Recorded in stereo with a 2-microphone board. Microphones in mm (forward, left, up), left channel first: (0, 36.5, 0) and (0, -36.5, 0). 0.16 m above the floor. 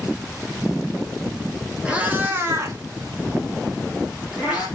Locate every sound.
1.9 s a cat meowing: 20° right (ahead or behind), 0.7 m